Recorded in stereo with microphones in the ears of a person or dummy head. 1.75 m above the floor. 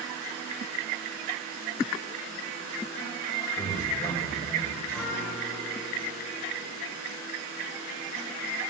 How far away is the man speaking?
About 7 m.